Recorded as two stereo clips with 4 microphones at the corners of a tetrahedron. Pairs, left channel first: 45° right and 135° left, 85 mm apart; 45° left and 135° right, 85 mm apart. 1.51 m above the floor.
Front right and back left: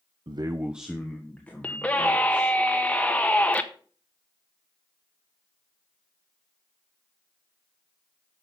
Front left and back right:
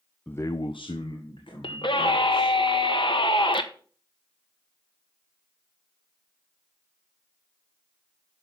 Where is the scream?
30° left, 1.3 m.